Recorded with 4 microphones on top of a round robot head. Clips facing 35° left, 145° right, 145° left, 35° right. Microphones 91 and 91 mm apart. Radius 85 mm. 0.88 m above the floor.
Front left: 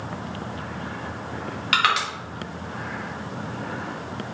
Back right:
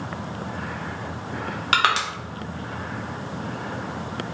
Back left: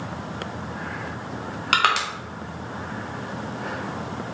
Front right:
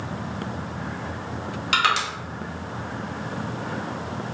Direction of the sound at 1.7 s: 165° left.